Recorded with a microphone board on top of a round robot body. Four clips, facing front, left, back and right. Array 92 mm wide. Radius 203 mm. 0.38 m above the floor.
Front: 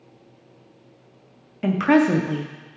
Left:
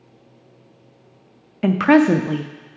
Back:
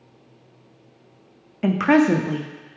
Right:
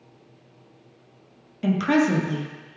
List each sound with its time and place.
1.6 s a woman speaking: 100° left, 0.8 m